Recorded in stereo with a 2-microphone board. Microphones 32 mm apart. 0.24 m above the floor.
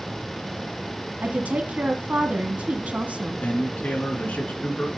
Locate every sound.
1.2 s a woman speaking: 50° right (ahead or behind), 1.9 m
3.4 s a man speaking: 55° left (ahead or behind), 3.5 m